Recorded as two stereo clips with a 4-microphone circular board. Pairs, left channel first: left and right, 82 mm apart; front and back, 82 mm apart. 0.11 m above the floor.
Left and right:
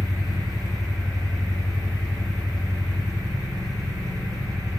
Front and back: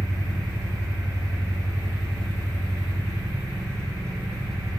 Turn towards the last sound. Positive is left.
turn(degrees=-130)